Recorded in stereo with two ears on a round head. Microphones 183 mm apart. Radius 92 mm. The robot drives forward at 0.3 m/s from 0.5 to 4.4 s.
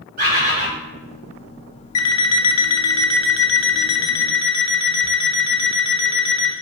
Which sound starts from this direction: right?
A bird, at 0.2 s.